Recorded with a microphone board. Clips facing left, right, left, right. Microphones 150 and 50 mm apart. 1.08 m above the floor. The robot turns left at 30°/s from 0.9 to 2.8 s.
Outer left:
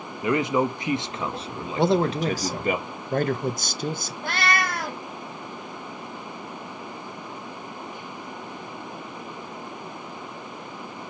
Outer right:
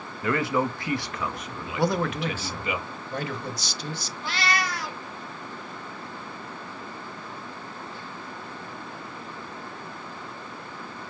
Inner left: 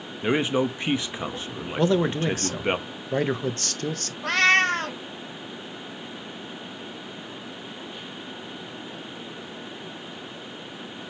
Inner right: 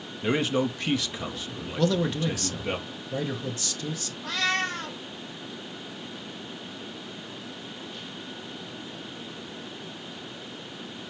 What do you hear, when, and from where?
0.2 s a man speaking: 155° left, 0.6 m; by 2.8 s 100° left, 0.6 m
1.8 s a man speaking: 155° left, 0.6 m; by 4.1 s 125° left, 0.6 m
4.2 s a cat meowing: 50° left (ahead or behind), 0.5 m